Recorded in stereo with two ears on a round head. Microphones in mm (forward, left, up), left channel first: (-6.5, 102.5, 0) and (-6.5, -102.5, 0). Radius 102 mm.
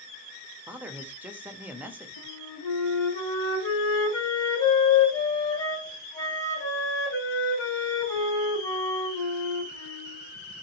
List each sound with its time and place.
0.7 s a man speaking: 10° right (ahead or behind), 0.6 m
2.2 s a flute: 15° left (ahead or behind), 1.5 m